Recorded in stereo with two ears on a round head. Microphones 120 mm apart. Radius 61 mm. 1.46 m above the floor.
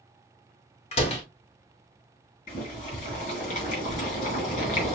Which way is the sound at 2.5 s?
55° left (ahead or behind).